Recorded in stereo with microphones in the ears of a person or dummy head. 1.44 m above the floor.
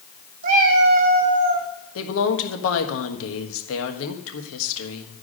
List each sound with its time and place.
0.4 s a cat meowing: 40° right (ahead or behind), 1.1 m
1.9 s a woman speaking: 70° left (ahead or behind), 1.5 m